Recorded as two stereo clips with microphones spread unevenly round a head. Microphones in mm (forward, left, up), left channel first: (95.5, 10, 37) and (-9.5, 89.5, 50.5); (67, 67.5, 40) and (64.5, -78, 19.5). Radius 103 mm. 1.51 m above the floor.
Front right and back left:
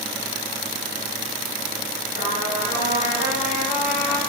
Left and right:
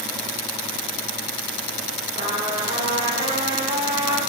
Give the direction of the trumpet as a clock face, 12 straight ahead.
1 o'clock.